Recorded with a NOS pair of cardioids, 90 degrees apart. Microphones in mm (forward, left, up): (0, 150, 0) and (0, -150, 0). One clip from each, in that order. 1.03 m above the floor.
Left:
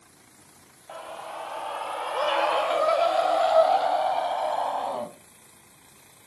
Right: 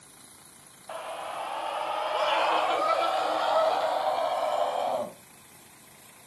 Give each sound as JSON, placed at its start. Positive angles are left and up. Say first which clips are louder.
{"t": 0.9, "sound": "a scream", "louder": "right 2 dB", "azimuth_deg": -40, "distance_m": 2.0}